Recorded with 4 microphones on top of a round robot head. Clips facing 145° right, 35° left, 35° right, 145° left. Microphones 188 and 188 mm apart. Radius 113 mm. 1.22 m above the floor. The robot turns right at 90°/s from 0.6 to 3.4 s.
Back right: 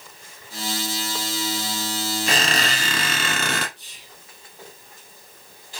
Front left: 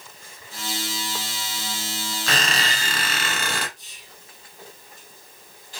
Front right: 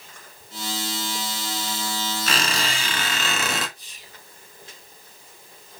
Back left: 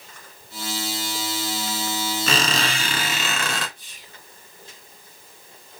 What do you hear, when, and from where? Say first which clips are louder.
2.3 s a squeak: back right 1 dB, back left 3 dB; 135° left, 1.7 m; by 3.7 s 120° right, 1.7 m
3.8 s whispering: back right 1 dB, even; 175° right, 2.5 m